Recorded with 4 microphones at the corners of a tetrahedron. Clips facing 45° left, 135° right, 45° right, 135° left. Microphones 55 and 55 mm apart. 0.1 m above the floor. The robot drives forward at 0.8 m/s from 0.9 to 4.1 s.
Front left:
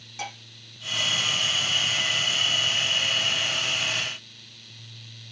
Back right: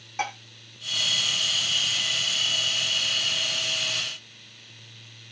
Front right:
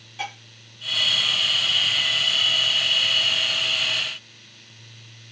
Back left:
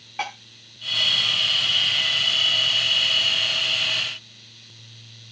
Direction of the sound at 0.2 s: Straight behind.